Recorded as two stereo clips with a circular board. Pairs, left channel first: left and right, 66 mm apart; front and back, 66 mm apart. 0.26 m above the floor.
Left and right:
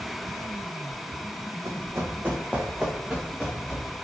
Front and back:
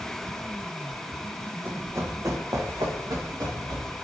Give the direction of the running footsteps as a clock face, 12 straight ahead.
4 o'clock.